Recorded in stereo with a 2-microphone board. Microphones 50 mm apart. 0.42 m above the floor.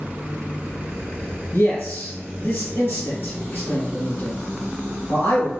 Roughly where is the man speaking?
Left.